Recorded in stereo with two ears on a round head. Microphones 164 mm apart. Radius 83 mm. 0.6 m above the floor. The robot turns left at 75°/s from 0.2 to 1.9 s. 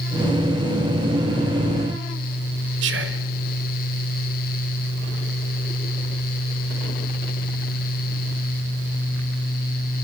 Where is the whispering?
70° right (ahead or behind), 2.0 m.